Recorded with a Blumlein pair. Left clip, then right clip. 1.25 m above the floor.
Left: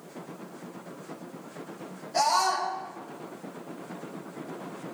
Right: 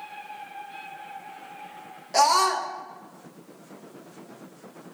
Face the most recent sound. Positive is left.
turn(degrees=-55)